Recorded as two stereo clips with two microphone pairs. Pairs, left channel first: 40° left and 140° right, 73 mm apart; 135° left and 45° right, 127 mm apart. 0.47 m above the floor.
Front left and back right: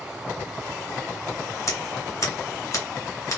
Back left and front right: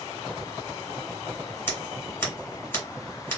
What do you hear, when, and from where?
1.7 s scissors: 65° left, 2.5 m